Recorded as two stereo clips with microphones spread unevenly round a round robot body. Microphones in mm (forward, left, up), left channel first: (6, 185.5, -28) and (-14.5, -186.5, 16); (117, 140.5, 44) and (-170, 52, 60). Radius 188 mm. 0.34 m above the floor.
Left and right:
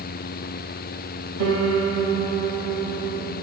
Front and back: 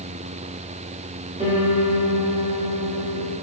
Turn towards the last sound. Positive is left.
turn(degrees=-100)